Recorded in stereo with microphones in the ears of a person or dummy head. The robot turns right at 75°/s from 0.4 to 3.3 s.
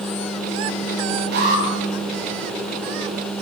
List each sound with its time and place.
1.3 s an alarm: 50° right (ahead or behind), 9 m; by 1.6 s 30° right (ahead or behind), 9 m